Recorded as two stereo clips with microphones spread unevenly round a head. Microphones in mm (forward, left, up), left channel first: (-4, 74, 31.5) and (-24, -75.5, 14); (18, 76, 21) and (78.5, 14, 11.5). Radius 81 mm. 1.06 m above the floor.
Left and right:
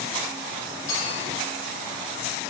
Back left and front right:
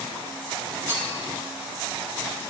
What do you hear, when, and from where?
0.9 s a clink: 80° left, 5 m